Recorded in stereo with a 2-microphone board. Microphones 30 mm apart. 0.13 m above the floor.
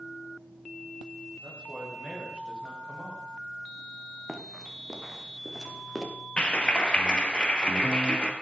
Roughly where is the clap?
Left.